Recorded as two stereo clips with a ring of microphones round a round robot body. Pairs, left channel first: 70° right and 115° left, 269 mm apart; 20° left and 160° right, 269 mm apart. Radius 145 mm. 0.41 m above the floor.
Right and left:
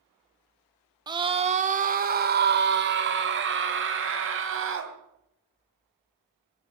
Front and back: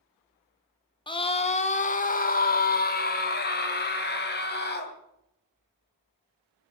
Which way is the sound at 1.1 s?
65° left.